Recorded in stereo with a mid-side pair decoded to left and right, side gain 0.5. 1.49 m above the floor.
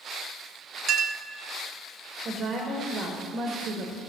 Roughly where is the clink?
Ahead right.